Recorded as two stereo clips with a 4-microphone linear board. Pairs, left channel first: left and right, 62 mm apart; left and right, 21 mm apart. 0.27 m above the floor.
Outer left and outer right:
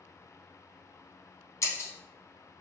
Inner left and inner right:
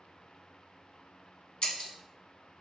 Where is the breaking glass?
55° left (ahead or behind), 0.5 m.